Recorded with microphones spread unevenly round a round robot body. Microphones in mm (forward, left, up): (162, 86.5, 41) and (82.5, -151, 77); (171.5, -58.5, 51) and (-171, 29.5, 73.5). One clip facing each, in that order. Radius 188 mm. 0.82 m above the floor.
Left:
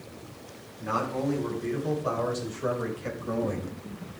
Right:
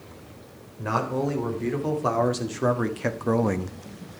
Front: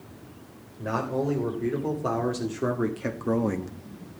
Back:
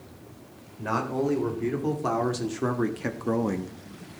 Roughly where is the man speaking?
Behind right.